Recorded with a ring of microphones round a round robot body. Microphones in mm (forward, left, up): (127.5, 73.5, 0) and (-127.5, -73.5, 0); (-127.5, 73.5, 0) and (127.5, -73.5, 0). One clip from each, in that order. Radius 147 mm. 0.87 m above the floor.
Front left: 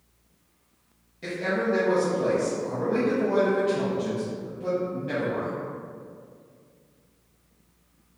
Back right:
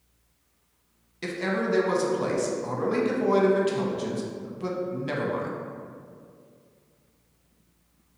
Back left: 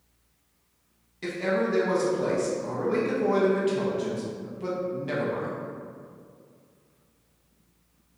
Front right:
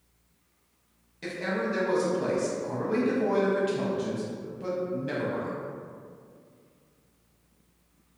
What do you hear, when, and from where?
1.2 s a man speaking: 125° right, 0.7 m